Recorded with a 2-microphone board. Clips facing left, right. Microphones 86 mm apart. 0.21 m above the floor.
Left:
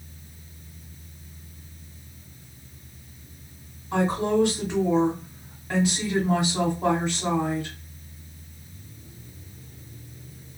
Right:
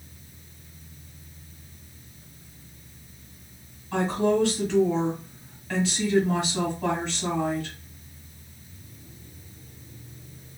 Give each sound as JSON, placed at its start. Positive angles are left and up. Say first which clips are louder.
{"t": 3.9, "sound": "a woman speaking", "louder": "even", "side_deg": 15, "distance_m": 1.1}